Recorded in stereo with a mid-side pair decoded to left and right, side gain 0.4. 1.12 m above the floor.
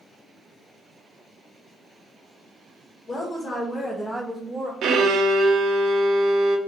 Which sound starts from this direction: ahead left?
A woman speaking, at 3.1 s.